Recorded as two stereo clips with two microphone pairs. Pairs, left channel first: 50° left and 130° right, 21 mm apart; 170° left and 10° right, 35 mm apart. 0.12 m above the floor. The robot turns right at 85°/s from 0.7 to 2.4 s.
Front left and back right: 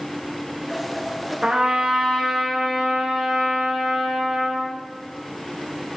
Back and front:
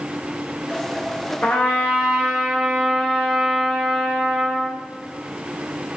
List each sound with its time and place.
1.4 s a trumpet: 175° left, 6 m; by 4.8 s 105° right, 6 m